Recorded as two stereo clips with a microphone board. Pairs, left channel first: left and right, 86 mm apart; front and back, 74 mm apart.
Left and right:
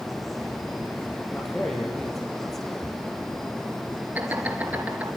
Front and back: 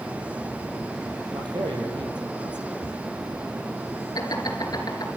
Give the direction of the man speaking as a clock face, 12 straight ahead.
6 o'clock.